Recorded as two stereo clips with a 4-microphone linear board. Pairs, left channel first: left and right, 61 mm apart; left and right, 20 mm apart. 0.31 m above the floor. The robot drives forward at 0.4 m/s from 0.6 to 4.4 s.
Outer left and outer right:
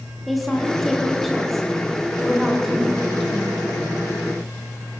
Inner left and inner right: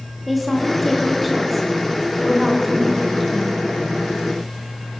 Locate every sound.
0.3 s a woman speaking: centre (ahead or behind), 4 m